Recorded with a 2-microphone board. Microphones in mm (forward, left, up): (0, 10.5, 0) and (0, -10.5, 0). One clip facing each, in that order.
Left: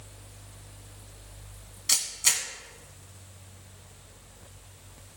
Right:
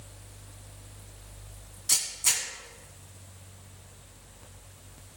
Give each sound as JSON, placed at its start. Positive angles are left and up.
{"t": 1.9, "sound": "a camera shutter", "side_deg": 45, "distance_m": 2.5}